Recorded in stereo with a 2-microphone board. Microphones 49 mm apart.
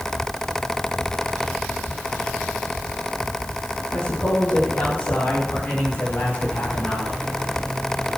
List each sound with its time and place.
3.9 s a man speaking: 40° left (ahead or behind), 5 m; by 7.2 s 55° left (ahead or behind), 7.5 m